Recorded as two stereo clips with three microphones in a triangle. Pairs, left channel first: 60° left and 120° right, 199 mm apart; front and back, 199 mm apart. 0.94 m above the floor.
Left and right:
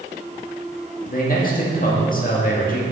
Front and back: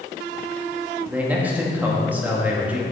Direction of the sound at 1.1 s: 100° left.